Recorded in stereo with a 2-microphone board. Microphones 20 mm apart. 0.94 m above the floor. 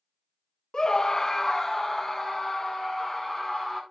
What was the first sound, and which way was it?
A scream, 30° left (ahead or behind).